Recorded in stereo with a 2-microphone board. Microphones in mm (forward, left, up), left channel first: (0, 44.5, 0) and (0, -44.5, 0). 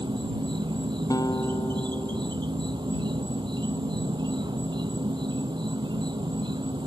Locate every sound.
0.0 s an insect: 60° right (ahead or behind)
1.1 s a guitar: 40° left (ahead or behind)